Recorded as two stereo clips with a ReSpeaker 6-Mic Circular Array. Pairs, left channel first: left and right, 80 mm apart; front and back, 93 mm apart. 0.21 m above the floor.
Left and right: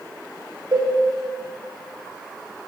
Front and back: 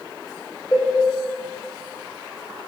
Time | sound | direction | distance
0.7 | a cowbell | 60° right | 4 m